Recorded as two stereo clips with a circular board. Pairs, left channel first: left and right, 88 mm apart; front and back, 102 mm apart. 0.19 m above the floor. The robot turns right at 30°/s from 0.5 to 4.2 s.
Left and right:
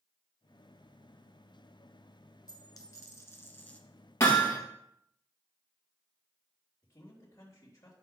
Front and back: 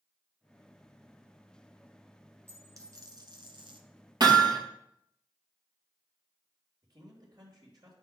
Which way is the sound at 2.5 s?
120° left.